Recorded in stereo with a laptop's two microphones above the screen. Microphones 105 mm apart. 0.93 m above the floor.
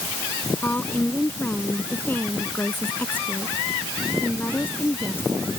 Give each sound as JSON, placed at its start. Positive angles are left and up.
{"t": 0.6, "sound": "a woman speaking", "side_deg": 15}